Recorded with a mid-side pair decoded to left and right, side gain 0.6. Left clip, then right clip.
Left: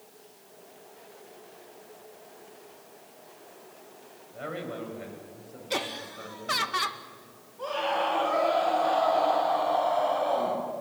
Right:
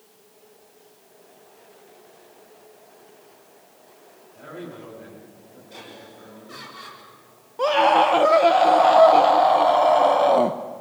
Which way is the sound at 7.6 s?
65° right.